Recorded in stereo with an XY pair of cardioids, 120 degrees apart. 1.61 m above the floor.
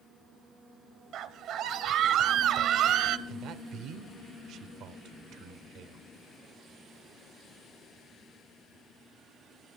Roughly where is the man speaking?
Right.